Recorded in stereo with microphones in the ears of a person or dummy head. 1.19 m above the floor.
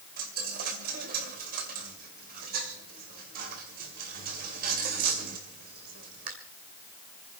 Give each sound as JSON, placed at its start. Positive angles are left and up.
{"t": 0.2, "sound": "a dropped coin", "side_deg": -50, "distance_m": 2.5}